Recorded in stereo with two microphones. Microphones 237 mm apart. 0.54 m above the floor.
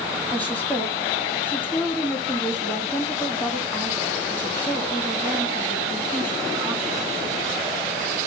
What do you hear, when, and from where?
0.3 s a woman speaking: 5° left (ahead or behind), 4 m